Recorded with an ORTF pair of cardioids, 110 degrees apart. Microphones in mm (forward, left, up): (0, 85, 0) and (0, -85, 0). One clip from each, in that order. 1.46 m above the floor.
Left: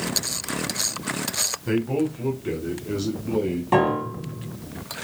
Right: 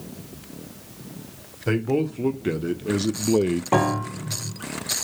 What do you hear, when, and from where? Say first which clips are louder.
1.7 s a man speaking: right 5 dB; 35° right, 1.3 m; by 3.6 s 75° right, 0.5 m
3.7 s a piano: left 3 dB; 35° right, 1.3 m